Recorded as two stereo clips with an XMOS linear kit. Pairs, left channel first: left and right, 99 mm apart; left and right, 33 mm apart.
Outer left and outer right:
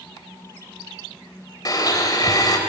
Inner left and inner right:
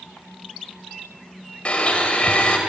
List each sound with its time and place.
1.6 s a blender: 40° left (ahead or behind), 3 m